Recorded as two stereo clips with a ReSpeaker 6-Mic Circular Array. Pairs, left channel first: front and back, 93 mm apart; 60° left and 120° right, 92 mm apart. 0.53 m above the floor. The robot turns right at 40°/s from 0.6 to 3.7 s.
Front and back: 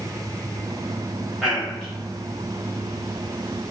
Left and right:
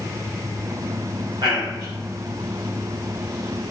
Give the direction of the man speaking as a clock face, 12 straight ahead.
4 o'clock.